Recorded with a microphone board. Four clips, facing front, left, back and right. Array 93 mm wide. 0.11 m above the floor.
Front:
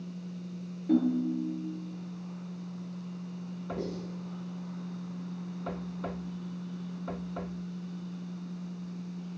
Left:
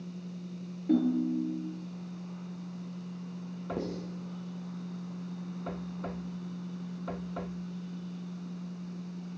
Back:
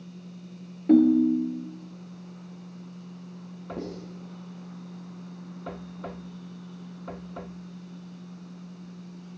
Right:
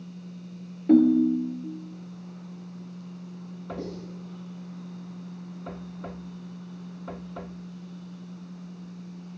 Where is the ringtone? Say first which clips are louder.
Right 9 dB, back 8 dB; 135° right, 0.7 m.